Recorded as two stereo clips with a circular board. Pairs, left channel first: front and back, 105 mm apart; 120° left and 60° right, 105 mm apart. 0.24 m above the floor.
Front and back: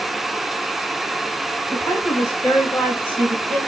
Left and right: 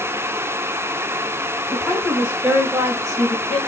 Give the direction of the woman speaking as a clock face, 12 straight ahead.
11 o'clock.